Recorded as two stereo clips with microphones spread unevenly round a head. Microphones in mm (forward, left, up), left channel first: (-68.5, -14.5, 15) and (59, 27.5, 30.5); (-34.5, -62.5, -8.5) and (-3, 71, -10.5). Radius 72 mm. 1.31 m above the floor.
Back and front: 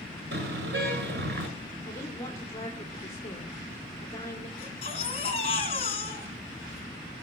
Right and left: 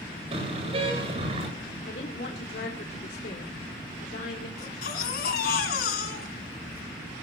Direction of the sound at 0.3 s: 20° left.